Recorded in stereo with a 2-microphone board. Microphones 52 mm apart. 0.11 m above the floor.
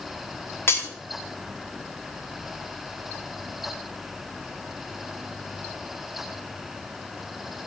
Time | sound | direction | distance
0.7 | breaking glass | 50° left (ahead or behind) | 3 m